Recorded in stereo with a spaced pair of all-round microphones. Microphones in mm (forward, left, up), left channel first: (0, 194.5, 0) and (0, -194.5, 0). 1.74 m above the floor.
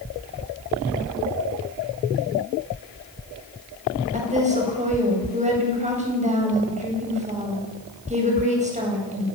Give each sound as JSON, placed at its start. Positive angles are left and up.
{"t": 4.1, "sound": "a woman speaking", "side_deg": -15, "distance_m": 9.0}